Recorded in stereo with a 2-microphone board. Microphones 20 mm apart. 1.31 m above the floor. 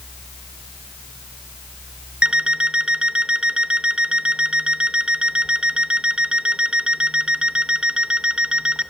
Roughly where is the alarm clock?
Right.